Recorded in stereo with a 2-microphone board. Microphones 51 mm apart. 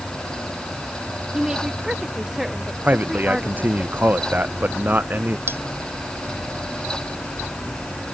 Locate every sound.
1.3 s a woman speaking: 15° right (ahead or behind); by 3.8 s 5° right (ahead or behind)
2.8 s a man speaking: 35° right (ahead or behind)
5.5 s cutlery clinking: 50° right (ahead or behind)